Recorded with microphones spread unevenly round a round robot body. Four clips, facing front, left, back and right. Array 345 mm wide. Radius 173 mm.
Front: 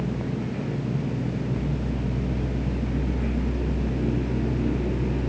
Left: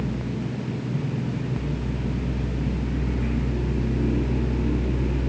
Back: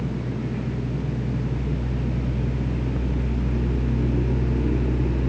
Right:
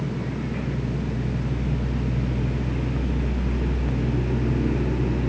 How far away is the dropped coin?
No dropped coin in this recording.